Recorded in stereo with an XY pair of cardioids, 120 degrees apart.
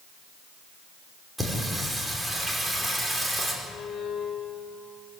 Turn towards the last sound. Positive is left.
turn(degrees=50)